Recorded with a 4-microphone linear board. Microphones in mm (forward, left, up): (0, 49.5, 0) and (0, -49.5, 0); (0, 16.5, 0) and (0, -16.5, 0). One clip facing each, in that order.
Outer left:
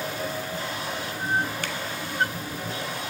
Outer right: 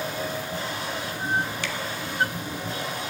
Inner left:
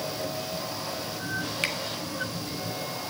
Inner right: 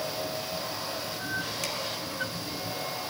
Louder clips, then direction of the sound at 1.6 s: Outer right 1 dB, inner left 5 dB; 50° left (ahead or behind).